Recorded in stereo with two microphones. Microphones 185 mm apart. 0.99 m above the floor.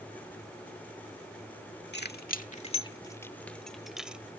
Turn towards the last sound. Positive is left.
turn(degrees=-5)  # may be behind; listen again after turning